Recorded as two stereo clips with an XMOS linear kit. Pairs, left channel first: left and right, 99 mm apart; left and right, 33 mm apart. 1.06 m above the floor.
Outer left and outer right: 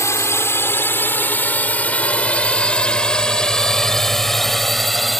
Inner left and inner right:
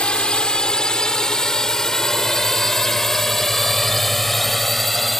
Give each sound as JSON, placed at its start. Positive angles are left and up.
{"t": 0.0, "sound": "a drone", "side_deg": 30}